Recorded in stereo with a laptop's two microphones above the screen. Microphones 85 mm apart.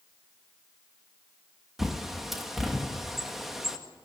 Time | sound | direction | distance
1.8 | a bird | 5° right (ahead or behind) | 1.5 m